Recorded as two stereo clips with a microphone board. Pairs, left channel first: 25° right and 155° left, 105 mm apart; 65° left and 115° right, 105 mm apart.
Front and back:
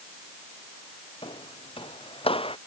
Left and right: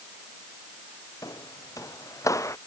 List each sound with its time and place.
1.2 s footsteps: 10° left; by 2.6 s 5° left